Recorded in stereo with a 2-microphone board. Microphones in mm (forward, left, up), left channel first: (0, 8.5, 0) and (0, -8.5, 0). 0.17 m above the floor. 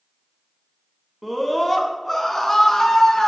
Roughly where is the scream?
Centre.